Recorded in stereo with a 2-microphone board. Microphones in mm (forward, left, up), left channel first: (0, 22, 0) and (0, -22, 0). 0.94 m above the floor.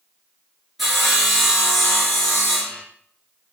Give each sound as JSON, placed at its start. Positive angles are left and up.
{"t": 0.8, "sound": "sawing", "side_deg": -5, "distance_m": 5.0}